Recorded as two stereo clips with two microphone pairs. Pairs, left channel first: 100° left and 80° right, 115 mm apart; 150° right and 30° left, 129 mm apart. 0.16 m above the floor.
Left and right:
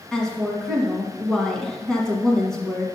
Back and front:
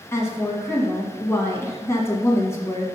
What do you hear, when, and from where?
0.1 s a woman speaking: 175° left, 1.4 m